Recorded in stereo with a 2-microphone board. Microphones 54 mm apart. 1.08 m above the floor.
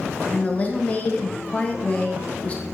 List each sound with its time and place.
0.3 s a woman speaking: 25° left (ahead or behind), 0.5 m